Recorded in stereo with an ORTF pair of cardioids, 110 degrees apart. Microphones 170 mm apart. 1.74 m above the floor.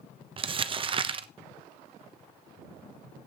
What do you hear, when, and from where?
0.4 s crumpling: 30° right, 0.9 m